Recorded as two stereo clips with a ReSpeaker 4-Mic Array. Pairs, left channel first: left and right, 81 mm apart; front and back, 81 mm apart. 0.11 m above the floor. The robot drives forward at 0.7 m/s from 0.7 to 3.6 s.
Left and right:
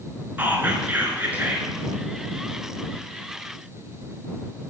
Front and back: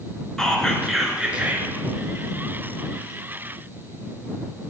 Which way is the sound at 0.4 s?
70° right.